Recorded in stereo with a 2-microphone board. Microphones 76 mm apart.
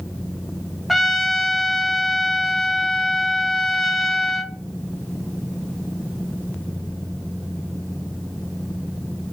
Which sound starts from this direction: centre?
A trumpet, at 0.9 s.